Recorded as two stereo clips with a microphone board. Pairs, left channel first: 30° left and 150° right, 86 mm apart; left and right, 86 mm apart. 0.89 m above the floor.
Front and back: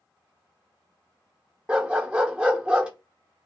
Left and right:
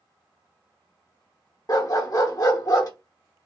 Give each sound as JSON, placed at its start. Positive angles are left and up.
{"t": 1.7, "sound": "a dog barking", "azimuth_deg": 135, "distance_m": 0.8}